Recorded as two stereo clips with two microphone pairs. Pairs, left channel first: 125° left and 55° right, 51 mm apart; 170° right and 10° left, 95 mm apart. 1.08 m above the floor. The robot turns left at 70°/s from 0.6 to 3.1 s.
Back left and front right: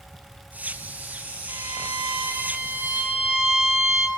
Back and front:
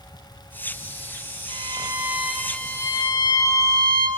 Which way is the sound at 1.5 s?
15° right.